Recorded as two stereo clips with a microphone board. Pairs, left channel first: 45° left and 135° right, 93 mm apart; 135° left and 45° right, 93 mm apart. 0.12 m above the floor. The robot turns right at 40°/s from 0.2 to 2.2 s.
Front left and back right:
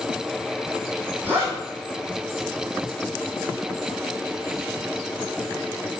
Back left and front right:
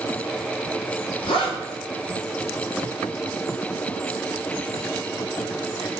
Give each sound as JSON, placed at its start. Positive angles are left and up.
{"t": 1.2, "sound": "a zipper", "azimuth_deg": 155, "distance_m": 2.0}